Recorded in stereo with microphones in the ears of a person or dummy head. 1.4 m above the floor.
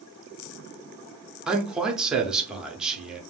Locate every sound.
1.5 s a man speaking: 5° right (ahead or behind), 0.7 m